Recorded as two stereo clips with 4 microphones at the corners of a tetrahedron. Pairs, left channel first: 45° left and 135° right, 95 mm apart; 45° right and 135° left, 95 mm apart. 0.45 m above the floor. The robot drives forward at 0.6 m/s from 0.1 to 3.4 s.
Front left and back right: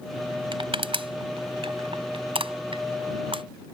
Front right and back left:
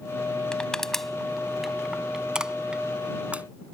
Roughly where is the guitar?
I don't hear a guitar.